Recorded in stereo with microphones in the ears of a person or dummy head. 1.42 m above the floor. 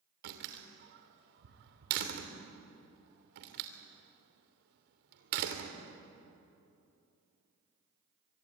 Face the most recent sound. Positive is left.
turn(degrees=-60)  # may be behind; listen again after turning